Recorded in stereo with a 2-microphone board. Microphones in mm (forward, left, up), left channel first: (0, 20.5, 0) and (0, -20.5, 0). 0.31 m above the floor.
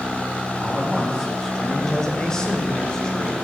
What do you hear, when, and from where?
0.6 s a man speaking: 5° left (ahead or behind), 1.8 m; by 3.3 s 15° left (ahead or behind), 1.3 m